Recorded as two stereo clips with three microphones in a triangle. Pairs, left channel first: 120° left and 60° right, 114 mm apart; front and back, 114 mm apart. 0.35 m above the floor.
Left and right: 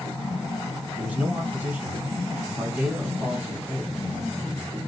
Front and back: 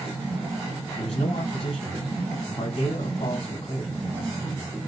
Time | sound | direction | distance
1.0 | a man speaking | 10° left | 2 m